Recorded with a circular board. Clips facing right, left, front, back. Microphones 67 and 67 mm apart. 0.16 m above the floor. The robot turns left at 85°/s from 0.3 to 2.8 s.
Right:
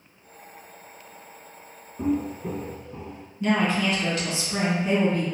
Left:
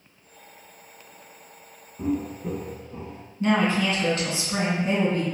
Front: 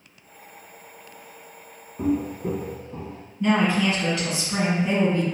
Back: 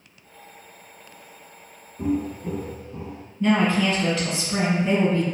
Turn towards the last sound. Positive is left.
turn(degrees=70)